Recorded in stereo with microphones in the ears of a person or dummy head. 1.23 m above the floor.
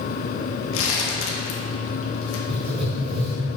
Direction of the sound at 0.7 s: 70° left (ahead or behind).